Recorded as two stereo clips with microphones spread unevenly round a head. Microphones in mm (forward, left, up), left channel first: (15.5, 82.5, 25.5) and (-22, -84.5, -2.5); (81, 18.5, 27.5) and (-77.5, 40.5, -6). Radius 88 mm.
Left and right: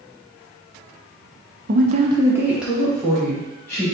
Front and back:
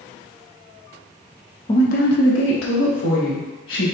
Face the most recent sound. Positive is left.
turn(degrees=-5)